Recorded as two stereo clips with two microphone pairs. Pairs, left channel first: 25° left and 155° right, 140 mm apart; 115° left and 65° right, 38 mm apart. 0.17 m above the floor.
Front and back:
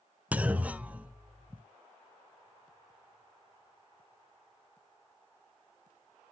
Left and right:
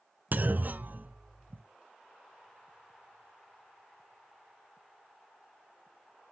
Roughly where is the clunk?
Right.